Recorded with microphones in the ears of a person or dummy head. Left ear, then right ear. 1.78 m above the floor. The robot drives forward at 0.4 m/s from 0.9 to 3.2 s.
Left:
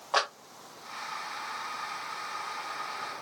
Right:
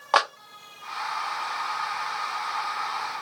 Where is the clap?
25° right (ahead or behind), 0.7 m.